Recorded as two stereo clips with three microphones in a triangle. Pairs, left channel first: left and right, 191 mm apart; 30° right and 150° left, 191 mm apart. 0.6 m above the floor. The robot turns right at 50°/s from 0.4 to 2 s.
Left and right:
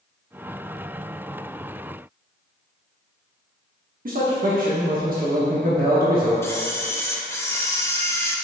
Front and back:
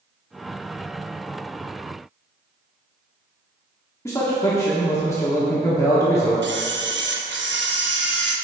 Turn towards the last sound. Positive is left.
turn(degrees=165)